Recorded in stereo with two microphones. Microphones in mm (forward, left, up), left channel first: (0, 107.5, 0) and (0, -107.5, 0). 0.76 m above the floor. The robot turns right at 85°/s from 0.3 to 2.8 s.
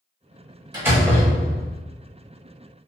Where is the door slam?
25° right, 0.9 m; by 1.8 s 65° left, 0.9 m.